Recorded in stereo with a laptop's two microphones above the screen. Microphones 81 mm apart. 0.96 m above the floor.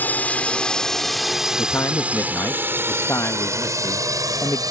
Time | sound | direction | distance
0.0 | a drone | 25° left (ahead or behind) | ?
1.6 | a man speaking | 40° left (ahead or behind) | ?